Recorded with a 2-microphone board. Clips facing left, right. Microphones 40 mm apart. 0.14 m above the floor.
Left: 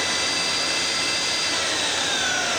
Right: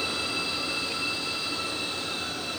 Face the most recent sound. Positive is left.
turn(degrees=65)  # may be behind; listen again after turning